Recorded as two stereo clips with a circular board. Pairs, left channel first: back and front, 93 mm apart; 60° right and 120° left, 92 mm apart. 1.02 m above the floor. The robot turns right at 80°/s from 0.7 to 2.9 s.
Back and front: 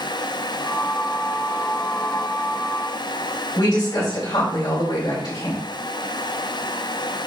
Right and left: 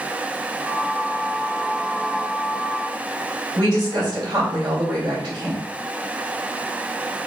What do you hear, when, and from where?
3.5 s a woman speaking: 155° left, 2.5 m